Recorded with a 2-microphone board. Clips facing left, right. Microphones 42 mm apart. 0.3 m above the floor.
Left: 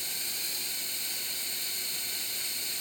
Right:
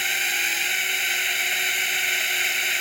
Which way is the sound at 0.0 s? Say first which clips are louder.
Right 16 dB; 60° right (ahead or behind).